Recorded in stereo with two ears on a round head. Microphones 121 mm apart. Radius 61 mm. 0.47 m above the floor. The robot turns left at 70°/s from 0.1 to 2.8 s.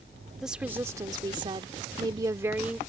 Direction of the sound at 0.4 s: 5° right.